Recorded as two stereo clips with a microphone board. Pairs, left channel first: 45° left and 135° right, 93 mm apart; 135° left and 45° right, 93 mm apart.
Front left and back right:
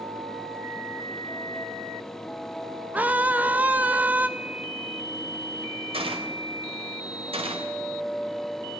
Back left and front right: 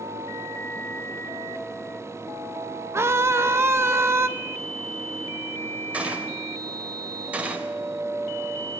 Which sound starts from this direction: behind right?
A gunshot, at 5.9 s.